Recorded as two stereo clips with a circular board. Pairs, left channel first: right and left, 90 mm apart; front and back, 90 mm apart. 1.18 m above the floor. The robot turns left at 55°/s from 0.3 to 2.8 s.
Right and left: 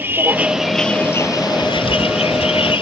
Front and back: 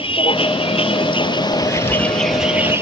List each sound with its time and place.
0.0 s a vehicle: 20° left; by 2.8 s 115° right
1.6 s writing: 75° right; by 2.8 s 140° right